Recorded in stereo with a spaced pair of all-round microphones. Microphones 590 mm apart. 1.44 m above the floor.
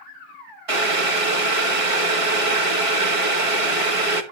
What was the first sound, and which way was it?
Boiling, 60° right (ahead or behind).